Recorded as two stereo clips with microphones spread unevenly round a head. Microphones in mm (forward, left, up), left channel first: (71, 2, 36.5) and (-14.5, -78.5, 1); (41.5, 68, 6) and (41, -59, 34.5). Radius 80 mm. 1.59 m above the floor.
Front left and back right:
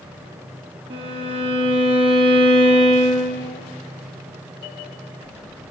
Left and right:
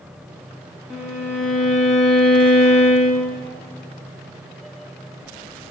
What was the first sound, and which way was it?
A violin, 165° right.